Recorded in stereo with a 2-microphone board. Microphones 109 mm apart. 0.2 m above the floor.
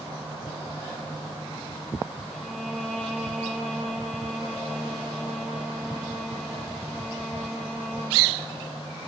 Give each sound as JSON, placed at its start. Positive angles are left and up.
{"t": 2.3, "sound": "a violin", "side_deg": 0, "distance_m": 4.5}